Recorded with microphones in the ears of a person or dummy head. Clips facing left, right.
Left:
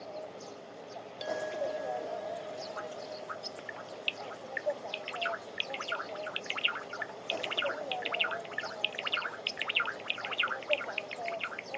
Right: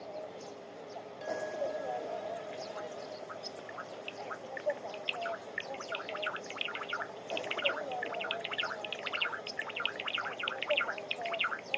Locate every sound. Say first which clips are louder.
0.0 s an insect: even; 5° left (ahead or behind)
1.2 s a clink: left 1 dB; 50° left (ahead or behind)